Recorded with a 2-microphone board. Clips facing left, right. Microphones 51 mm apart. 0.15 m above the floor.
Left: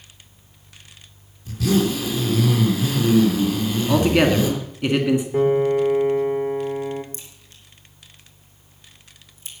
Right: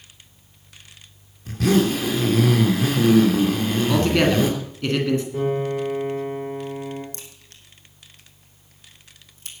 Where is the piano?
35° left (ahead or behind), 4.5 m.